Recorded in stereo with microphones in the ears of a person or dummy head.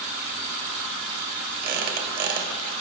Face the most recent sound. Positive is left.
turn(degrees=-55)  # may be behind; listen again after turning